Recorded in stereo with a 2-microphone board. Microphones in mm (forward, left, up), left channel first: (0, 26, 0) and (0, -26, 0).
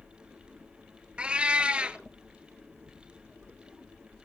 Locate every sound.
1.2 s a cat meowing: 20° right (ahead or behind), 0.8 m